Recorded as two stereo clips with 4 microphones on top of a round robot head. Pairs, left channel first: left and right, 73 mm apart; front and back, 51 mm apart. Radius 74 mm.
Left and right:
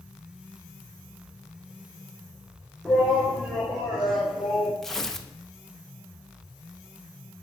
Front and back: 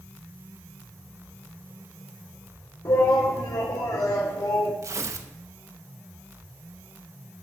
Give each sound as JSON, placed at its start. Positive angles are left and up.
{"t": 2.9, "sound": "a shout", "azimuth_deg": 0, "distance_m": 2.5}
{"t": 4.8, "sound": "tearing paper", "azimuth_deg": 175, "distance_m": 1.3}